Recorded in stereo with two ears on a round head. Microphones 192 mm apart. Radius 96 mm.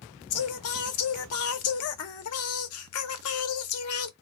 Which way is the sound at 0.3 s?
70° left (ahead or behind).